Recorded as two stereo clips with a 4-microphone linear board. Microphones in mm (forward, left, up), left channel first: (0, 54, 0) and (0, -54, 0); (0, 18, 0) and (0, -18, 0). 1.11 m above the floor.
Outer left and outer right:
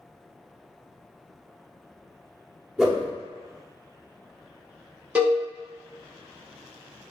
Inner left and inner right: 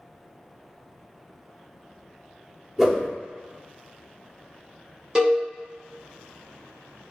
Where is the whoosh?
5° right (ahead or behind), 0.8 m.